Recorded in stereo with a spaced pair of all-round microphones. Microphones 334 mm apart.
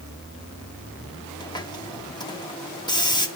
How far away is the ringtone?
No ringtone in this recording.